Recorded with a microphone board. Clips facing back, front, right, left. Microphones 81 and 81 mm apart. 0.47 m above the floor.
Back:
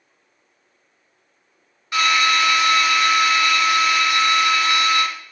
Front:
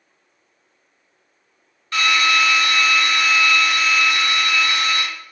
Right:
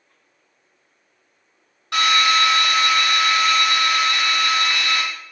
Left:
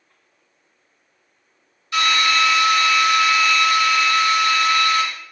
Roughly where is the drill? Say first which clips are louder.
Even, right 1 dB; right.